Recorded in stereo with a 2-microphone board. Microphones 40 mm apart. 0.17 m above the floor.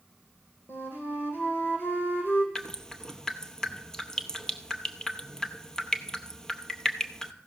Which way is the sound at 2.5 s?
15° left (ahead or behind).